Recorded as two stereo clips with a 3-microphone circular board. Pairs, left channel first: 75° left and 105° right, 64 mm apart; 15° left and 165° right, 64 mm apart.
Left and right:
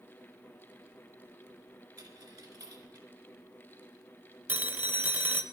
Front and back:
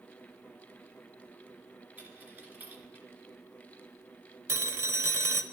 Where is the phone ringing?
145° right, 0.7 m.